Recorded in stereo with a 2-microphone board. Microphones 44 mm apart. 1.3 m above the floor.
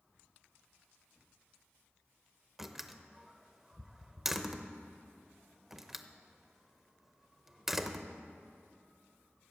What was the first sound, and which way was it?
A door slam, 5° right (ahead or behind).